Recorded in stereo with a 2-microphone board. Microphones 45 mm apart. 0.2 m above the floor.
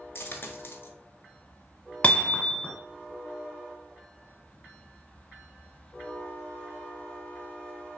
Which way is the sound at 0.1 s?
55° left (ahead or behind).